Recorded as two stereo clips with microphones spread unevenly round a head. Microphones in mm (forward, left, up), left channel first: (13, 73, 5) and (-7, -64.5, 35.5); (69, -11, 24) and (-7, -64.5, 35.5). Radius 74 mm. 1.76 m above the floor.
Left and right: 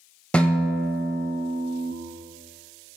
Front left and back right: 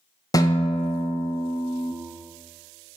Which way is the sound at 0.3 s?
10° right.